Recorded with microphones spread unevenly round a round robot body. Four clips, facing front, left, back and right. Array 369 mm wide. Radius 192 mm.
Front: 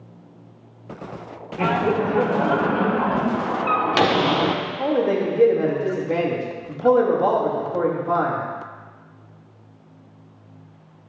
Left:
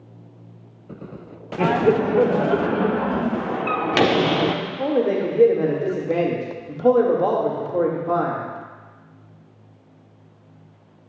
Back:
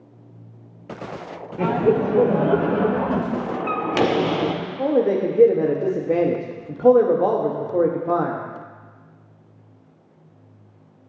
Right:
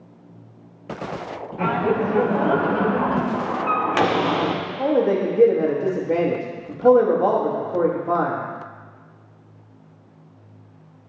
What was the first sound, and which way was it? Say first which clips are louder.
Laughter: left 3 dB, back 2 dB; 110° left.